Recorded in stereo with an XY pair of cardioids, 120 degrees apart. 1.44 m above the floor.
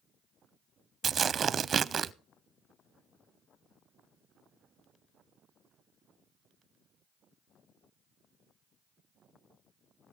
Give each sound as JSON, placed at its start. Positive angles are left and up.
{"t": 1.0, "sound": "tearing paper", "azimuth_deg": -40, "distance_m": 0.5}